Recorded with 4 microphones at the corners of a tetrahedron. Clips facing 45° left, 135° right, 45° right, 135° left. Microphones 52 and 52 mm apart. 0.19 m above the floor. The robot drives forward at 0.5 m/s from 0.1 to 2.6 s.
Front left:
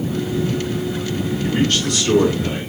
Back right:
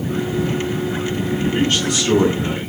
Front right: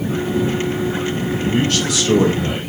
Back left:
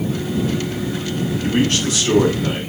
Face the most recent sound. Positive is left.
turn(degrees=165)